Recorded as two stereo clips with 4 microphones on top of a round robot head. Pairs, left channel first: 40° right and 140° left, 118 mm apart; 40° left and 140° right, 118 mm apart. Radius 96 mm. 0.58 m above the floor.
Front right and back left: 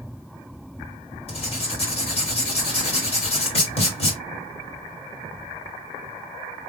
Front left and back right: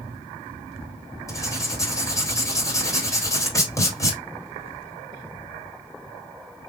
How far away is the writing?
About 2.5 m.